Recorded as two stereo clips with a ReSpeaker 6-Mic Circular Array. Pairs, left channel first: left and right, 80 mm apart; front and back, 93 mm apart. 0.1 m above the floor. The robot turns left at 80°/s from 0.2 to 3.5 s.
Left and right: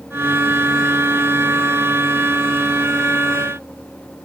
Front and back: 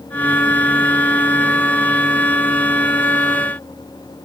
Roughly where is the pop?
No pop in this recording.